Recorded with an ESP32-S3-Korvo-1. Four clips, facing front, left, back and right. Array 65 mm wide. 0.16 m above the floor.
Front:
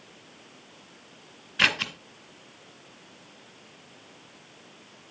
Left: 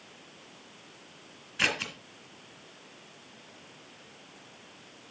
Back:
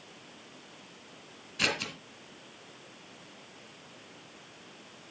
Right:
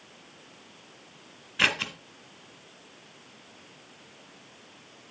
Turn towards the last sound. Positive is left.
turn(degrees=-30)